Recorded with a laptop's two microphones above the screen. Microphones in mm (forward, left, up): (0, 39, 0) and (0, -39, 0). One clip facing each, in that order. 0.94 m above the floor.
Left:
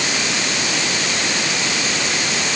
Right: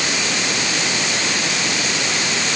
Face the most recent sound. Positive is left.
No sound to turn to.